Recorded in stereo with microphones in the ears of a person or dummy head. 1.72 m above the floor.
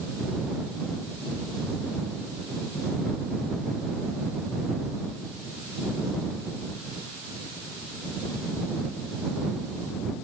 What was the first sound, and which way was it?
Only background noise.